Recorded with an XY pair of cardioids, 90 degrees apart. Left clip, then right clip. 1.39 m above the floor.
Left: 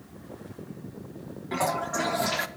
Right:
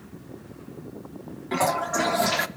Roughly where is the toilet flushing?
Ahead right.